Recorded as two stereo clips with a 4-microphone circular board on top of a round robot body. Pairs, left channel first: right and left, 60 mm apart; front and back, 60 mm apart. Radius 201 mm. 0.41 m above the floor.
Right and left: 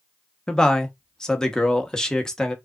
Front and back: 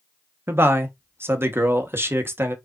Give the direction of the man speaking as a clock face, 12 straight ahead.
5 o'clock.